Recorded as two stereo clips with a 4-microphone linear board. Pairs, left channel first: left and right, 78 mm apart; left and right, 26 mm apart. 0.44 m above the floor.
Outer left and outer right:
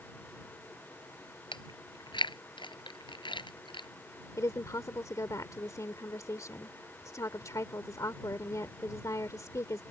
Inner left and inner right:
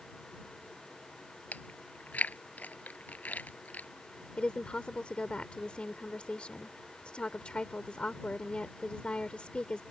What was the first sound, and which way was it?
Chewing, 75° left (ahead or behind).